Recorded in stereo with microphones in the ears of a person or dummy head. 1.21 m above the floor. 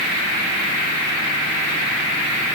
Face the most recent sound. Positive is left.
No sound to turn to.